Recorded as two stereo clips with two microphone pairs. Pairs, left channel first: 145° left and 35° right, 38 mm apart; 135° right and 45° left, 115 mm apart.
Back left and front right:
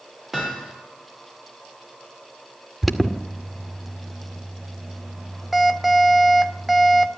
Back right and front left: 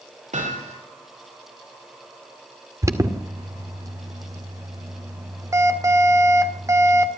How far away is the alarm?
About 1.9 m.